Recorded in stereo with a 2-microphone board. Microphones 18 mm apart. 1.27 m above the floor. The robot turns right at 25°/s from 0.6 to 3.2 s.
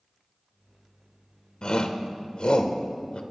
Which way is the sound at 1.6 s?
50° left (ahead or behind).